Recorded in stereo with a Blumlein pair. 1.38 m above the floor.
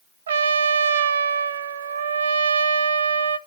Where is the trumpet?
65° right, 0.7 m.